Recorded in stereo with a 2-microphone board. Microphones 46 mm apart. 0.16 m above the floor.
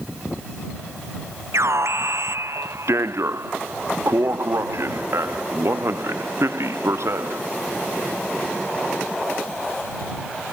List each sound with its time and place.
1.5 s an alarm: 75° right (ahead or behind)